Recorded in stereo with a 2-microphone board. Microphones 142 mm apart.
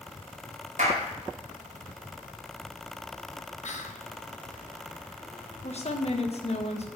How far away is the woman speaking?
About 1.5 m.